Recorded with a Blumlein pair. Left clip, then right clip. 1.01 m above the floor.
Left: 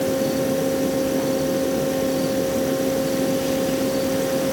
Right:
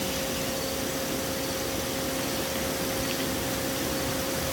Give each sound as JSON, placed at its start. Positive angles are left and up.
{"t": 0.0, "sound": "a fan", "azimuth_deg": 30}